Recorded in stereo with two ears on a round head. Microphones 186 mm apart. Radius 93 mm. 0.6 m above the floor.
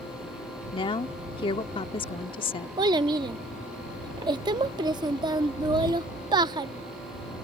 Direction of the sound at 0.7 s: 25° left (ahead or behind).